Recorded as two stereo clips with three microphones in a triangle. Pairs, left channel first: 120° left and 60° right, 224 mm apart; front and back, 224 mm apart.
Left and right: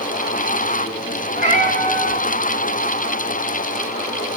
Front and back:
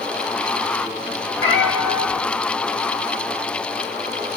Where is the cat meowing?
25° right, 2.5 m.